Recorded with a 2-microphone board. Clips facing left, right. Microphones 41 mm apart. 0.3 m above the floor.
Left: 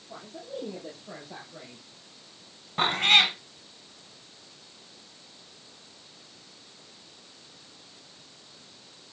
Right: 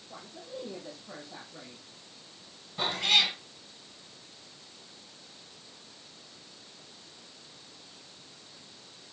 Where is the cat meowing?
55° left (ahead or behind), 1.2 m.